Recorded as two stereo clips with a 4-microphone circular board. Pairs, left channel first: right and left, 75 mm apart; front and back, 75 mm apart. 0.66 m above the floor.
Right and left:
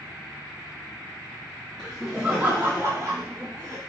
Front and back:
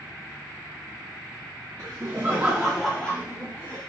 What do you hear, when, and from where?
1.8 s laughter: 170° right, 0.8 m; by 3.8 s 60° left, 1.2 m